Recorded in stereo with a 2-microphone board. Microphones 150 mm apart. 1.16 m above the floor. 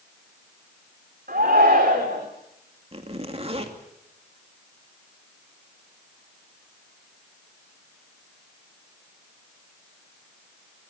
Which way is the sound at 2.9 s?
40° right (ahead or behind).